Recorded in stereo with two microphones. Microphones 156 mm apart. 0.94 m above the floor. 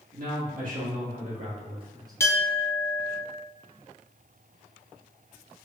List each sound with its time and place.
0.1 s a man speaking: 60° right (ahead or behind), 1.6 m; by 2.1 s 20° right (ahead or behind), 0.8 m
2.2 s a clink: 20° left (ahead or behind), 0.6 m